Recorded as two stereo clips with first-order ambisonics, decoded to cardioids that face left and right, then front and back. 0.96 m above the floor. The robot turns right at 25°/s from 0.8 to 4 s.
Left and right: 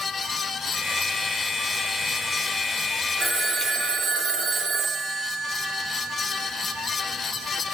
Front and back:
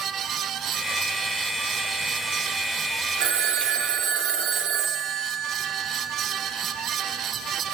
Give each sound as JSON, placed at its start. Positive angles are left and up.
{"t": 3.2, "sound": "a phone ringing", "azimuth_deg": -165, "distance_m": 1.7}